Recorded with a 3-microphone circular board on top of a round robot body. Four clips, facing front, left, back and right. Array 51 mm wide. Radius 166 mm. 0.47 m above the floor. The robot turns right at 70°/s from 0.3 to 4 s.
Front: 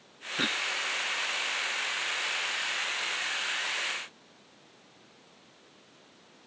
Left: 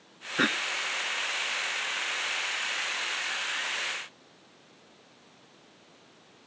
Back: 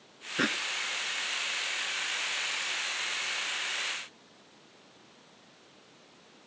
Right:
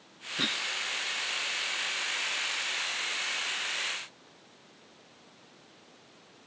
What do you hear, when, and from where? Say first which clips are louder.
0.4 s a cough: left 6 dB, back 1 dB; 105° left; by 0.7 s 125° left